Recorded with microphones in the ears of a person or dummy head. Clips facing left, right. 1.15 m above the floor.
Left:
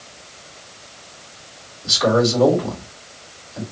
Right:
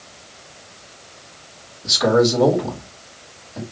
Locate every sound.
1.8 s a man speaking: 25° right (ahead or behind), 3.5 m